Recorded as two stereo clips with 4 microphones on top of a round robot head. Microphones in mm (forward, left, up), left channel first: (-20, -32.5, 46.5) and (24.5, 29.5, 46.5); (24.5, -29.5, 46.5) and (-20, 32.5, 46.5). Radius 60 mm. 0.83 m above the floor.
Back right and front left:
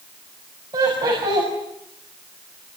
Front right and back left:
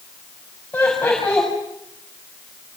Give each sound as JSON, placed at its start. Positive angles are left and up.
{"t": 0.7, "sound": "laughter", "azimuth_deg": 20, "distance_m": 6.5}